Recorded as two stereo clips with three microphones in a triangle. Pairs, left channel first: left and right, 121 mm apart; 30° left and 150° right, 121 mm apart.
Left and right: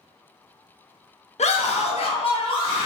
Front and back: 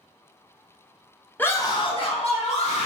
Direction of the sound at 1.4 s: 105° left.